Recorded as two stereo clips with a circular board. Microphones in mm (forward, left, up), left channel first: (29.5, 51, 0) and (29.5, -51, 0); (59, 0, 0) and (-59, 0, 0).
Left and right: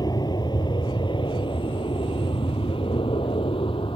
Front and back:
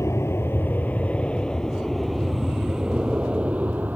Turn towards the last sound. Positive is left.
turn(degrees=105)